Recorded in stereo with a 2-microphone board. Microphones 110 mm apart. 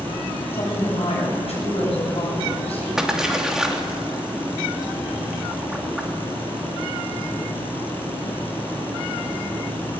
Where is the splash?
5° right (ahead or behind), 2.5 m.